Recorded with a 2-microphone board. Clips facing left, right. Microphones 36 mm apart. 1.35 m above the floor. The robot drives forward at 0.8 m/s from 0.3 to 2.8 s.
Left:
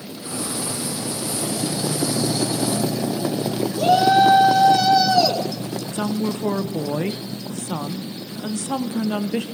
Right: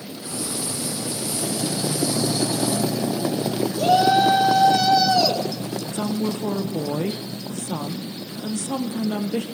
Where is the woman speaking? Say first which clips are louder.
Left 1 dB; 55° left (ahead or behind), 0.8 m.